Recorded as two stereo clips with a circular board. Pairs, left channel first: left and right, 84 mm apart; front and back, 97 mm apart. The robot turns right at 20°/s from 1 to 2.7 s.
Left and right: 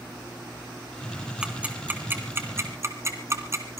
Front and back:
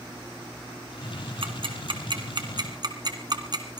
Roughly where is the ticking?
Behind.